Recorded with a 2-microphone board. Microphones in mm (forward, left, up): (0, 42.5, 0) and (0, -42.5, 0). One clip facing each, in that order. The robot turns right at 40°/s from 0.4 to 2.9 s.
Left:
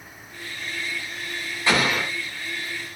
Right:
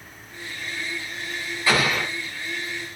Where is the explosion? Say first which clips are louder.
Even; 20° left (ahead or behind), 6.5 m; by 2.1 s 40° left (ahead or behind), 6.5 m.